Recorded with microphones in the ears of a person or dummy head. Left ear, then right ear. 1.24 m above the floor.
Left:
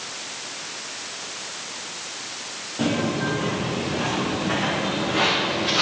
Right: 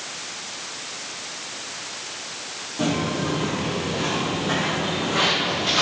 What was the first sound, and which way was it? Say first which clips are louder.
Footsteps: even; 20° left (ahead or behind).